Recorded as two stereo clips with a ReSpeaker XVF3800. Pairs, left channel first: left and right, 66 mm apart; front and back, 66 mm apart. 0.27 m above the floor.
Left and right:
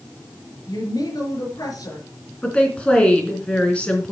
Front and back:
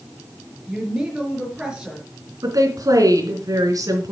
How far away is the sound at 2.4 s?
About 3.5 m.